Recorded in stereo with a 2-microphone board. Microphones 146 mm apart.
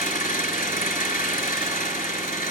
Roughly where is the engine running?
Left.